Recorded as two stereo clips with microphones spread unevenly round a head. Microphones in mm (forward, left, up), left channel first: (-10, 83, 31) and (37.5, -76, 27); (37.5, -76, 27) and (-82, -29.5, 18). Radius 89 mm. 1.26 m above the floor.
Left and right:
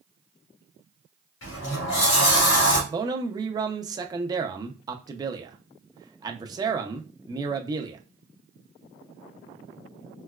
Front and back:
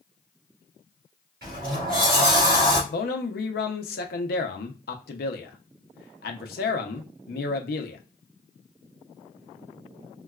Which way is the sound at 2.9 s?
5° right.